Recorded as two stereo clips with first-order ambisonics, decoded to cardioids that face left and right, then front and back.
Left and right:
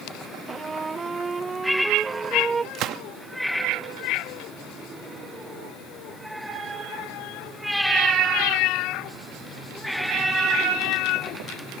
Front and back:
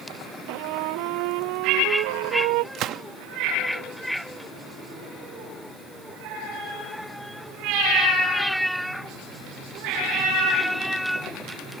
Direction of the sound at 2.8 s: 135° right.